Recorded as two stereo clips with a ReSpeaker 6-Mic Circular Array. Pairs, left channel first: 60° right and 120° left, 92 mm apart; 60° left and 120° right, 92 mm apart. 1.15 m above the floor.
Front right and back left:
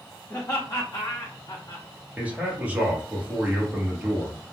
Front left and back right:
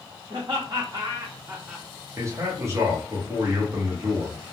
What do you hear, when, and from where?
0.3 s laughter: 115° right, 0.9 m; by 1.9 s 25° right, 0.7 m
2.2 s a man speaking: 170° right, 1.0 m